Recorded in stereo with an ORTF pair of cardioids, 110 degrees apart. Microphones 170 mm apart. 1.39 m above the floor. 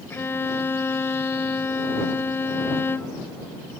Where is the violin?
15° left.